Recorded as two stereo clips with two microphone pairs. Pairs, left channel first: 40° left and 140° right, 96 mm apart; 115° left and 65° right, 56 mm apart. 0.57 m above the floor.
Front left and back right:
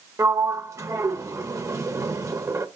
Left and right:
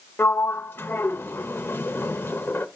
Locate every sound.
0.2 s a sliding door: 165° left, 0.8 m